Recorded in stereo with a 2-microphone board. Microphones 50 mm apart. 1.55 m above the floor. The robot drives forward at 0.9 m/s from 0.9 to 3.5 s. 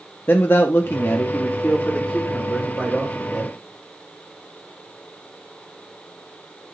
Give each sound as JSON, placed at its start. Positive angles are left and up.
{"t": 0.3, "sound": "a man speaking", "side_deg": 50, "distance_m": 0.7}